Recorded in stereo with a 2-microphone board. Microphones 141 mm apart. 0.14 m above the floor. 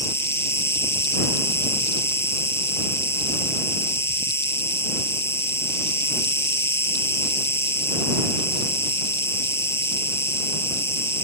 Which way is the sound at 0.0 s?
20° left (ahead or behind).